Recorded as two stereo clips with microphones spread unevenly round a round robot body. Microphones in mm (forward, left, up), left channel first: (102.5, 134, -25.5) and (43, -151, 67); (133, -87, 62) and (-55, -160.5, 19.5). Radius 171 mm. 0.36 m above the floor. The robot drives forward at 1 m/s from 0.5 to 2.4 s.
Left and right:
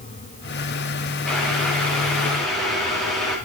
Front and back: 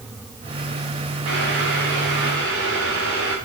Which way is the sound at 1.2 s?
165° left.